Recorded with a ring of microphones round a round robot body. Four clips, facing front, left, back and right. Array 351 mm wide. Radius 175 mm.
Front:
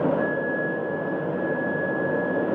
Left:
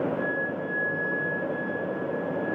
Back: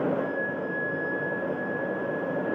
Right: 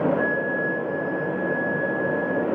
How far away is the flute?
About 5 m.